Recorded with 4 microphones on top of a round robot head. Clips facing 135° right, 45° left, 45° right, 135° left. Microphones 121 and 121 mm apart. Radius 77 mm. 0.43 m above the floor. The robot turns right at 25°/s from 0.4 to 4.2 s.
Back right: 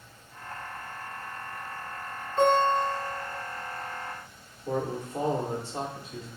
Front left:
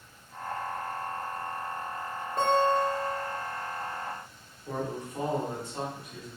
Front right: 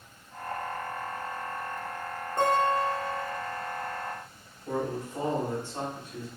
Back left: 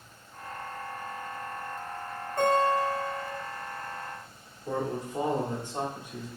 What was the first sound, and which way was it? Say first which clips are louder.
A guitar: back right 2 dB, back left 1 dB; 10° left.